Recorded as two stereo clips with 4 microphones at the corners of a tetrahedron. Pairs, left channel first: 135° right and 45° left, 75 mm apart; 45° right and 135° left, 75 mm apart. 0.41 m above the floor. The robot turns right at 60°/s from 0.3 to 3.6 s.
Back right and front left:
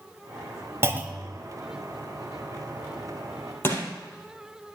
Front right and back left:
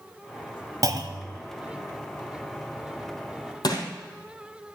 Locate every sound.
0.8 s a clunk: 100° left, 0.9 m; by 1.4 s 135° left, 0.9 m
3.6 s crushing: 75° right, 3 m